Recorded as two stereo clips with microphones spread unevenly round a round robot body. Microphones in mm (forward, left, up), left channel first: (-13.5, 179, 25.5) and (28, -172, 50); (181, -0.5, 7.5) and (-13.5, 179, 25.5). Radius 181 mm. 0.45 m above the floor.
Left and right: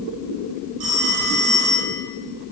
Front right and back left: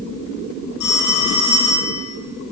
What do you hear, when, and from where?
0.8 s a phone ringing: 50° right, 7.5 m